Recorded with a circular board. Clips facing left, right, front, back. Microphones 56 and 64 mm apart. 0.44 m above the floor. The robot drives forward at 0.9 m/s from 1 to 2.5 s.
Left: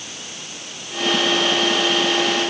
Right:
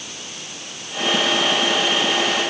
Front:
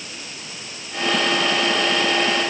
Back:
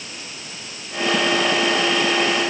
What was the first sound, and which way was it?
Only background noise.